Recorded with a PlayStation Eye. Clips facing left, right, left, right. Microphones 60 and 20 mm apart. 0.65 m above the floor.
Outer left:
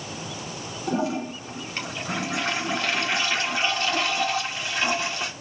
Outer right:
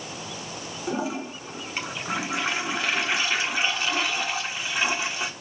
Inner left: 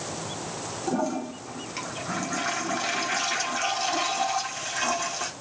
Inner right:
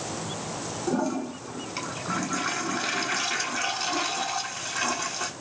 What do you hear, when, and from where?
0.9 s a toilet flushing: 10° right (ahead or behind), 1.7 m